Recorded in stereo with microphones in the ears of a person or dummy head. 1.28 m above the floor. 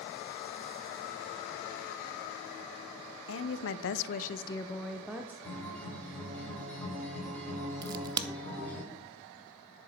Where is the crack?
20° right (ahead or behind), 0.5 m.